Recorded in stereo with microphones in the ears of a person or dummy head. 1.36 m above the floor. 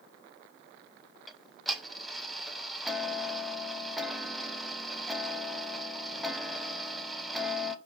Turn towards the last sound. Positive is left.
turn(degrees=-5)  # may be behind; listen again after turning